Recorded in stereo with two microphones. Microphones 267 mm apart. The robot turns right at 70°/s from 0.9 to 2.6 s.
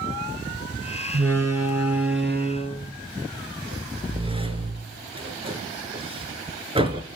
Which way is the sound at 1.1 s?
55° right (ahead or behind).